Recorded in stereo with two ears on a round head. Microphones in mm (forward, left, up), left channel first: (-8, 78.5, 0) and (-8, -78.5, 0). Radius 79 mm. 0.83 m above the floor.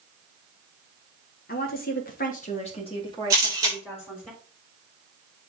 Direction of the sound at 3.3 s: 20° right (ahead or behind).